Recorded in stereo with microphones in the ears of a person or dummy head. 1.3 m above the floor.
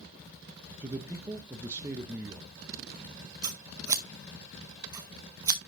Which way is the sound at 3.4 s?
15° right (ahead or behind).